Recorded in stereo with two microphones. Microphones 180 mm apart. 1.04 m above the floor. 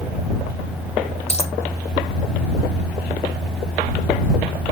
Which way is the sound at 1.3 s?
40° left (ahead or behind).